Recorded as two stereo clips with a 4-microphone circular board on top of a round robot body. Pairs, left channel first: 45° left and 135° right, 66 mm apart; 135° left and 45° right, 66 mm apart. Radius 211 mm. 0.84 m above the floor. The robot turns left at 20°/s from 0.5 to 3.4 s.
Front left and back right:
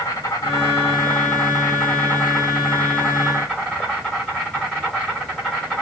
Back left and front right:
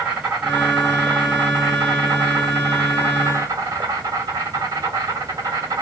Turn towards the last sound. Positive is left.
turn(degrees=-30)